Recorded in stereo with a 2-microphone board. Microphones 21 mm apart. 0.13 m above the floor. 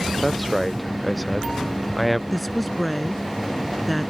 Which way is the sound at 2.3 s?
5° left (ahead or behind).